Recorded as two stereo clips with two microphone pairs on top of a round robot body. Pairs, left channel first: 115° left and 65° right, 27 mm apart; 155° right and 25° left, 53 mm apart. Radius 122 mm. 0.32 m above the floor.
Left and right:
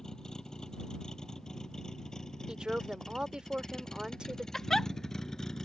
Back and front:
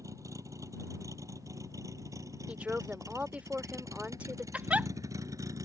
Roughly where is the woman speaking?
Ahead right.